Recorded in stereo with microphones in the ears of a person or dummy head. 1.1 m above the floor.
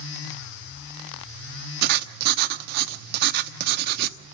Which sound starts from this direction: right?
Writing, at 1.8 s.